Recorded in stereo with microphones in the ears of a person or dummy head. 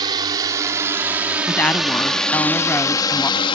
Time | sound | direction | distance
0.0 | a drone | 20° right (ahead or behind) | ?
1.5 | a woman speaking | 15° left (ahead or behind) | ?